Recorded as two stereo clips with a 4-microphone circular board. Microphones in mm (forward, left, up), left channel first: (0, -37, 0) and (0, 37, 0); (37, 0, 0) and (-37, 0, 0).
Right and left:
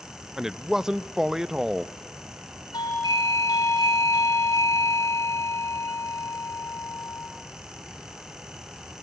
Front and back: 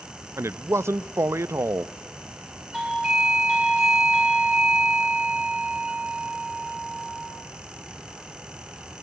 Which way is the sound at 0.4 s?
170° left.